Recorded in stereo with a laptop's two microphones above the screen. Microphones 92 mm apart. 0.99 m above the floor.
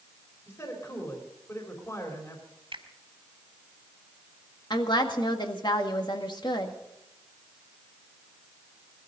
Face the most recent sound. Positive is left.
turn(degrees=55)  # may be behind; listen again after turning